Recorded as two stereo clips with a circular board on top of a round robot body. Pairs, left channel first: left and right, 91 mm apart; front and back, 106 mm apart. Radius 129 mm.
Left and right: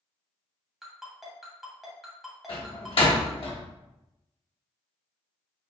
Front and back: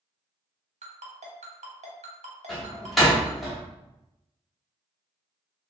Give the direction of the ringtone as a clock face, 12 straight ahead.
6 o'clock.